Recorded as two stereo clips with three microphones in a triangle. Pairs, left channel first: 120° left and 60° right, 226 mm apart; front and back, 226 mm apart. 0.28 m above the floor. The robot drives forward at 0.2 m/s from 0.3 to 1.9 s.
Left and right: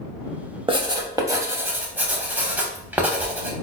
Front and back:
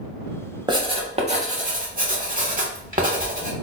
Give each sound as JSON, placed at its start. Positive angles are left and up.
{"t": 0.7, "sound": "writing", "azimuth_deg": -120, "distance_m": 0.6}